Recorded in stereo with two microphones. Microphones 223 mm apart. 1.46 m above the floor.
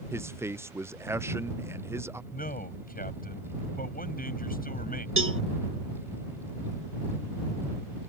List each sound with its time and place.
0.1 s a man speaking: 10° right (ahead or behind)
2.3 s a man speaking: 40° left (ahead or behind)
5.2 s a cowbell: 65° right (ahead or behind)